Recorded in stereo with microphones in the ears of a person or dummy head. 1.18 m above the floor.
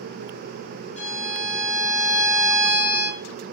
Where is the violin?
30° left (ahead or behind), 0.9 m.